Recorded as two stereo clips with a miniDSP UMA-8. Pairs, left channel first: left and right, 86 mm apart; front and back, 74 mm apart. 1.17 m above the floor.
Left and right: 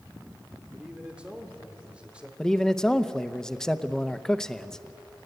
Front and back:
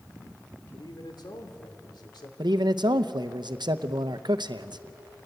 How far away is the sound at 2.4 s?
About 0.9 m.